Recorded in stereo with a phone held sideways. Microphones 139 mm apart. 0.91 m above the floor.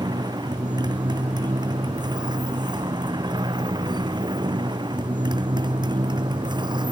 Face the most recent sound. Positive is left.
turn(degrees=-30)  # may be behind; listen again after turning